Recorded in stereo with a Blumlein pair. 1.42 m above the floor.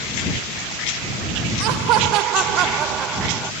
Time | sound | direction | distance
1.6 | laughter | 40° right | ?